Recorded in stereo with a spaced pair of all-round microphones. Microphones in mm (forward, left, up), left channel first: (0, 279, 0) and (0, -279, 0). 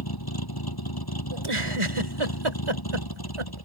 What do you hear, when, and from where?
0.0 s a vehicle: 40° left (ahead or behind)
1.3 s a giggle: 60° right (ahead or behind)